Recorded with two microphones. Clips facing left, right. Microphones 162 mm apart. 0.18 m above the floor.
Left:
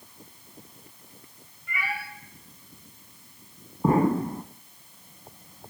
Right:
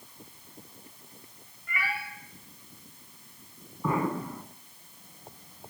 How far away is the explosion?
About 0.5 m.